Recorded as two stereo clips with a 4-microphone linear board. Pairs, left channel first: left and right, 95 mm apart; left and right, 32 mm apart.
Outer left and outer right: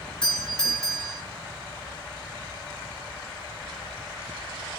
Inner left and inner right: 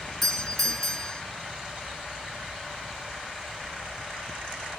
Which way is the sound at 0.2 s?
10° left (ahead or behind).